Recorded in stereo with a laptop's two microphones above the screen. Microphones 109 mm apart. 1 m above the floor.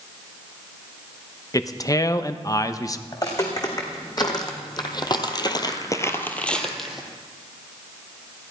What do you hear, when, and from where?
1.5 s a man speaking: 30° left (ahead or behind), 0.8 m
3.1 s footsteps: 35° left (ahead or behind), 4 m; by 7.1 s 5° right (ahead or behind), 1.9 m